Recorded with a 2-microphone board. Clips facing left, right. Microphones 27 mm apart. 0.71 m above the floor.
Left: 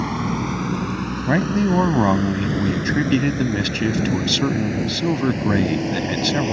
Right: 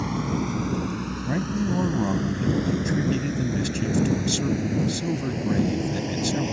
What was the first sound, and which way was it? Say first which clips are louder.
A vehicle: left 3 dB; 25° left (ahead or behind).